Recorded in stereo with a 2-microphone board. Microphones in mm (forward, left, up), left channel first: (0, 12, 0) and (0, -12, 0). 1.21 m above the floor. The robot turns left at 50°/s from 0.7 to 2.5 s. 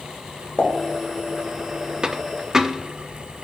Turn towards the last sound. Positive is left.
turn(degrees=-25)  # may be behind; listen again after turning